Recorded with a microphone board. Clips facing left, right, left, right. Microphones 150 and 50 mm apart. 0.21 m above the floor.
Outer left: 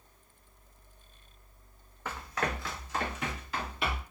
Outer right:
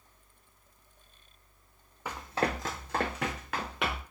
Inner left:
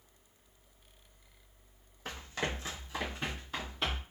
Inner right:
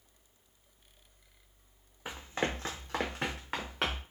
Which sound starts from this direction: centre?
Running footsteps, at 2.0 s.